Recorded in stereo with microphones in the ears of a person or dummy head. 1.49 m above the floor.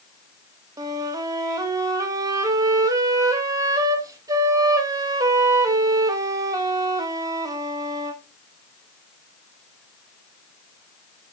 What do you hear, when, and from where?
0.8 s a flute: 15° right (ahead or behind), 0.7 m